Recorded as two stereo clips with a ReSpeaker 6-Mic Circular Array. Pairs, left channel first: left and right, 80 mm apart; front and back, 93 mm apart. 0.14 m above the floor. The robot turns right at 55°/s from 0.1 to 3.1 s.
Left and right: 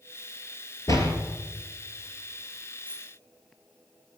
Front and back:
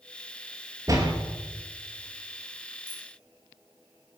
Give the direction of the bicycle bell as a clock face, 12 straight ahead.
9 o'clock.